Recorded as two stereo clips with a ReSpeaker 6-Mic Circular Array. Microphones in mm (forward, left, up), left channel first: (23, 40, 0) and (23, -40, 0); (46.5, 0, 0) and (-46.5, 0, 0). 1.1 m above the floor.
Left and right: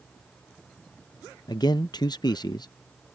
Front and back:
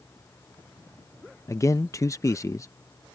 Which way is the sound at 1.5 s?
55° left.